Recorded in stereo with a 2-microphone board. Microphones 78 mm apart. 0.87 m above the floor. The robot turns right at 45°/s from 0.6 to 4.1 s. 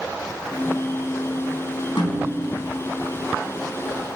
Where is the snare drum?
75° left (ahead or behind), 4.5 m; by 2.5 s 50° left (ahead or behind), 4.5 m.